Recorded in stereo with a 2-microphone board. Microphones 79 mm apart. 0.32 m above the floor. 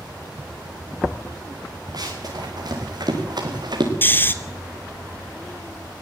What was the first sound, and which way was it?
Running footsteps, 55° right (ahead or behind).